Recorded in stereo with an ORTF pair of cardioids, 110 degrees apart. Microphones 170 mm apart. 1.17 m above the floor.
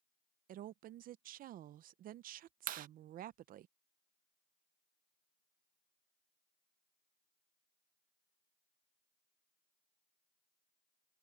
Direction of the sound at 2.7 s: 60° right.